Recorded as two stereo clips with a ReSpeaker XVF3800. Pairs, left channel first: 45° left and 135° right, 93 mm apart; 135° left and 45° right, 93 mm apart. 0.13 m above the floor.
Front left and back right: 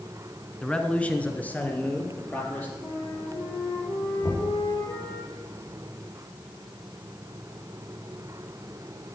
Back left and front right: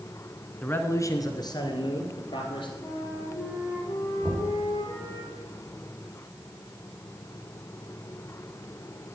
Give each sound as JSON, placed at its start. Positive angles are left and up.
{"t": 0.6, "sound": "a man speaking", "azimuth_deg": 110, "distance_m": 1.0}
{"t": 2.8, "sound": "a flute", "azimuth_deg": 95, "distance_m": 3.0}
{"t": 4.2, "sound": "knocking", "azimuth_deg": 15, "distance_m": 5.0}